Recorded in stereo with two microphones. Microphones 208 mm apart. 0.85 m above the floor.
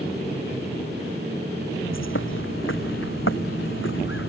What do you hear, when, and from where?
1.9 s a bird: 75° left (ahead or behind)